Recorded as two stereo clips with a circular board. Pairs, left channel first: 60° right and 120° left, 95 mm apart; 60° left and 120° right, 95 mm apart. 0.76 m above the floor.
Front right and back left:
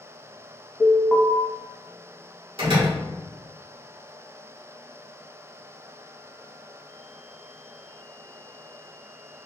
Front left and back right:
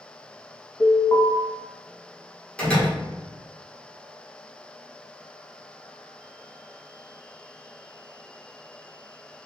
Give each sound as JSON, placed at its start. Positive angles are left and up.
{"t": 0.8, "sound": "an alarm", "azimuth_deg": 35, "distance_m": 1.1}
{"t": 2.6, "sound": "a door slam", "azimuth_deg": 135, "distance_m": 1.8}